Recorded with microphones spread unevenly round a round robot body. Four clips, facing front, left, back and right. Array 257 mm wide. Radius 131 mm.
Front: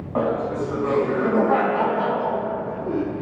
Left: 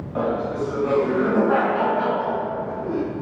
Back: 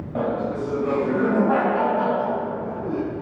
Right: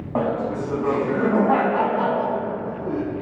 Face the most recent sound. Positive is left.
turn(degrees=-135)